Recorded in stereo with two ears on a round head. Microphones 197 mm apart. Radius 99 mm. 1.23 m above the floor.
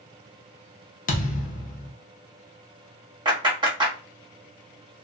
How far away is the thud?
About 0.9 m.